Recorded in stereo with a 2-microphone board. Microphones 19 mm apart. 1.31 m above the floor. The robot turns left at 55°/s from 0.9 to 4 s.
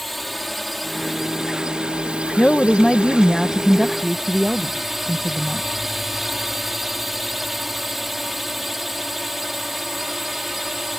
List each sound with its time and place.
0.0 s a drone: straight ahead; by 11.0 s 170° right
2.4 s a woman speaking: 55° left; by 5.7 s 35° right